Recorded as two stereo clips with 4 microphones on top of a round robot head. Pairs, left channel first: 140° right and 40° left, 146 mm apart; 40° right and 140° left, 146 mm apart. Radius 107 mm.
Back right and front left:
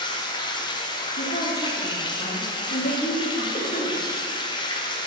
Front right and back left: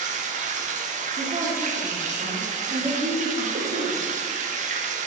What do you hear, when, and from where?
0.0 s running water: 165° left, 1.0 m
1.2 s a woman speaking: 170° right, 2.5 m
3.5 s a cough: 175° left, 1.9 m